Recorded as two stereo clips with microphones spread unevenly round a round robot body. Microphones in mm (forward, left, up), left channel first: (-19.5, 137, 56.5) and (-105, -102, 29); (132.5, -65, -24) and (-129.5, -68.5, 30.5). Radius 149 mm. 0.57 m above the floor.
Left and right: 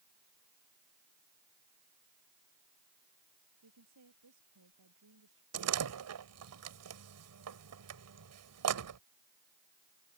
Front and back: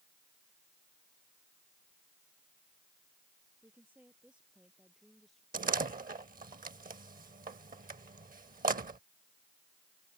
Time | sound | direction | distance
3.6 | a woman speaking | 95° right | ?
5.5 | a door slam | 120° right | ?